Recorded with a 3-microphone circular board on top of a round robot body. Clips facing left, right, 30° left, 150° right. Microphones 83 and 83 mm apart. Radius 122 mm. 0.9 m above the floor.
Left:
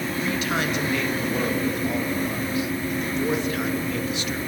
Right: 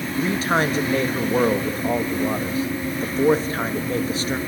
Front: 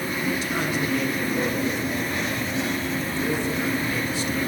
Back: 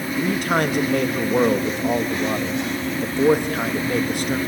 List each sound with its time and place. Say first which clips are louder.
0.2 s a man speaking: right 6 dB, back 8 dB; 140° right, 1.9 m